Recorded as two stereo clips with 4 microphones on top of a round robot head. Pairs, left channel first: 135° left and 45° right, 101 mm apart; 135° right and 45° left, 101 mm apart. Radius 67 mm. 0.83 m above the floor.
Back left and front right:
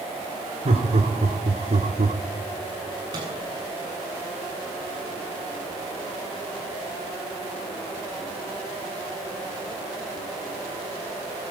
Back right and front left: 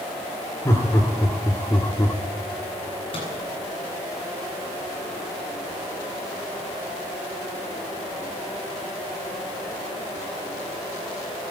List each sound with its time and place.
0.7 s laughter: 70° right, 2.5 m; by 2.2 s 65° right, 1.9 m
3.1 s a microwave: 95° right, 8.5 m